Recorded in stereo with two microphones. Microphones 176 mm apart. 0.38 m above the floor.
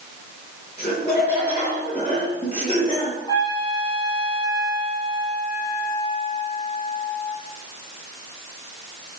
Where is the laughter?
40° left (ahead or behind), 6 m; by 3.2 s 35° left (ahead or behind), 7.5 m.